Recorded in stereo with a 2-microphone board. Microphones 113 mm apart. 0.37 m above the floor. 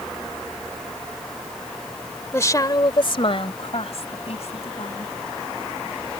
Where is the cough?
No cough in this recording.